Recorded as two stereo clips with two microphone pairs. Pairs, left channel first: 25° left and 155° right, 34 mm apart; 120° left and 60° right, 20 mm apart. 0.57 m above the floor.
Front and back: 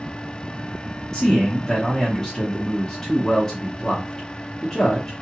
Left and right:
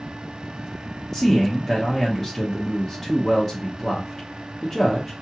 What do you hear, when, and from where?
1.1 s a man speaking: 75° left, 1.0 m